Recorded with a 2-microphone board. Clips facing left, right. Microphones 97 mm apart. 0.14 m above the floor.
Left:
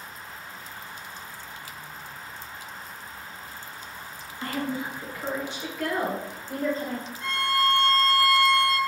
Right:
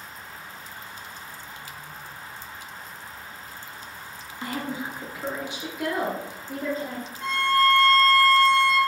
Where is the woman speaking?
15° right (ahead or behind), 1.3 m.